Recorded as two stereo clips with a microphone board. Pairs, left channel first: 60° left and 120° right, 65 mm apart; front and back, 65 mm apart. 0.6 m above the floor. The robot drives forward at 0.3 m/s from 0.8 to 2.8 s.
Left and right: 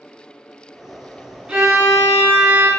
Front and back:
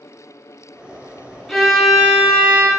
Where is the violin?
80° right, 0.6 m; by 2.7 s 150° right, 0.7 m.